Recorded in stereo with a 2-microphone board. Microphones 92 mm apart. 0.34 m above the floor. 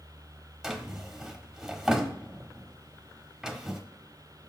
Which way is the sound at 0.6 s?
5° right (ahead or behind).